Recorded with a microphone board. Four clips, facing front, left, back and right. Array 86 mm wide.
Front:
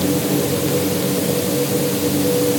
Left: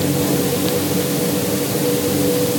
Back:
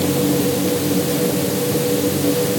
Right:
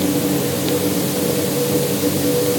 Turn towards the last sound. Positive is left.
No sound to turn to.